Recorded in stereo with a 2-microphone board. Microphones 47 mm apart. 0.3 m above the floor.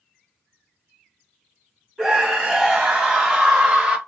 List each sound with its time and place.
2.0 s a scream: 5° right (ahead or behind), 2.5 m; by 4.0 s 15° right (ahead or behind), 1.6 m